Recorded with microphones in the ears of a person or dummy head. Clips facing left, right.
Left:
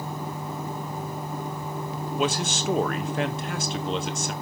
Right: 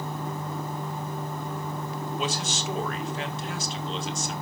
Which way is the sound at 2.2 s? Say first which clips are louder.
Left 7 dB; 45° left (ahead or behind).